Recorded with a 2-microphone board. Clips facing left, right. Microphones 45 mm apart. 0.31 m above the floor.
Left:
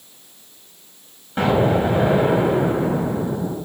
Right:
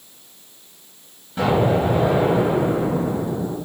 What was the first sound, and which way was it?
An explosion, 40° left (ahead or behind).